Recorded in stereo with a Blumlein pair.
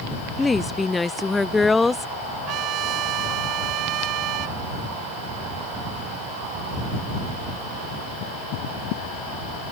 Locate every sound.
0.4 s a woman speaking: 10° left
2.5 s a trumpet: 35° right